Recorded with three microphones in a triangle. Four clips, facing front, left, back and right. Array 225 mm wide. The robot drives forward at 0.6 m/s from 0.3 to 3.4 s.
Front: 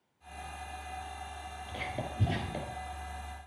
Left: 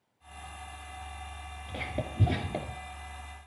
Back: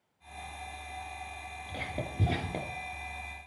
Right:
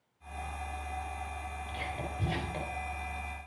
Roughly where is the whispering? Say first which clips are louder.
Left 4 dB, even; behind left.